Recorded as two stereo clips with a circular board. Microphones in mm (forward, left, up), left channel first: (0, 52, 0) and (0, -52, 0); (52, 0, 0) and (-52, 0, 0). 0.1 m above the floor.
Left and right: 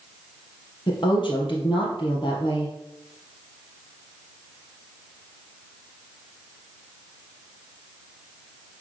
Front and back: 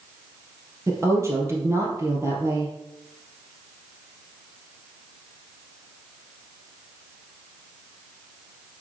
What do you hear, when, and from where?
0.9 s a woman speaking: 120° left, 2 m